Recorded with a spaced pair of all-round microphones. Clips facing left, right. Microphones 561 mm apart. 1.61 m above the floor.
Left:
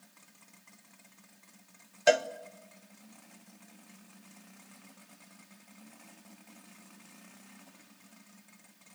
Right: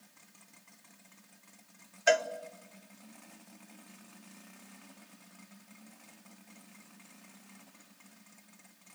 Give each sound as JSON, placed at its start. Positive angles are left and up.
{"t": 2.1, "sound": "a cowbell", "side_deg": 60, "distance_m": 0.8}